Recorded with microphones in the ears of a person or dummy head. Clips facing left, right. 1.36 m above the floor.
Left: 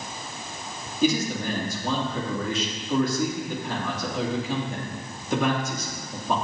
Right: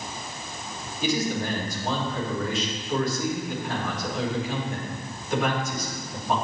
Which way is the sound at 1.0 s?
80° left.